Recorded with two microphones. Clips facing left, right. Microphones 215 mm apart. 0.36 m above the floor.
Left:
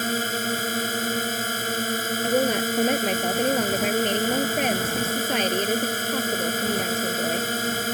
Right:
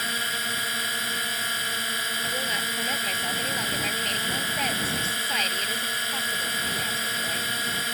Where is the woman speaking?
60° left (ahead or behind).